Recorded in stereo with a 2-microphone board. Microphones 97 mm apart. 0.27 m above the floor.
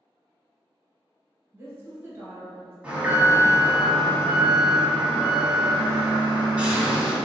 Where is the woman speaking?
25° right (ahead or behind), 1.6 m.